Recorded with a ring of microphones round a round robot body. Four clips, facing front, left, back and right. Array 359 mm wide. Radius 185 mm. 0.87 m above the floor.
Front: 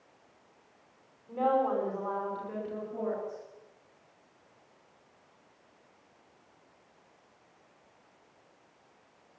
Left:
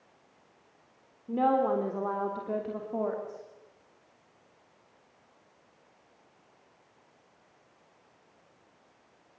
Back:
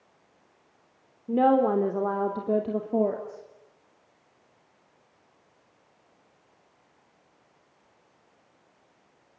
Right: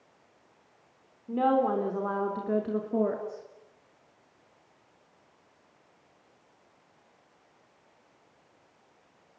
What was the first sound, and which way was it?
A woman speaking, 175° right.